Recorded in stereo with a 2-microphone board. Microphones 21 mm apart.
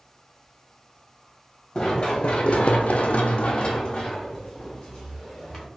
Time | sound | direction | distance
1.8 | running footsteps | 30° left (ahead or behind) | 0.8 m